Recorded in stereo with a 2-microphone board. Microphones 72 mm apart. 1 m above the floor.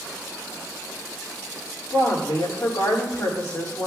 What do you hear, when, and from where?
1.9 s a woman speaking: 60° left (ahead or behind), 5.5 m